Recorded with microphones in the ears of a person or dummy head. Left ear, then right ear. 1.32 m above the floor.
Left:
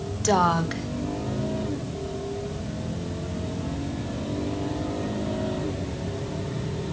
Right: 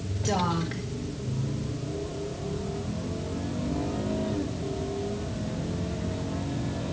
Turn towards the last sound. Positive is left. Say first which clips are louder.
# left 7 dB
turn(degrees=45)  # may be behind; listen again after turning